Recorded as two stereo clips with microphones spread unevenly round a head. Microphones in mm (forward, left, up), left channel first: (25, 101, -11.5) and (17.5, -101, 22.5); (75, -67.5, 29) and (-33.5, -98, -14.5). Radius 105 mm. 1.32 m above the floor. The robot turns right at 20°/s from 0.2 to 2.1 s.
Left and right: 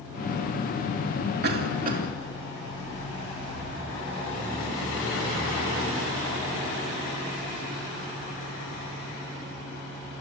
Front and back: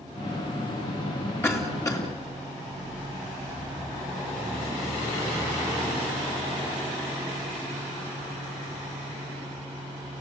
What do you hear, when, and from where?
1.4 s a cough: 55° right, 3.5 m; by 2.0 s 40° right, 3.5 m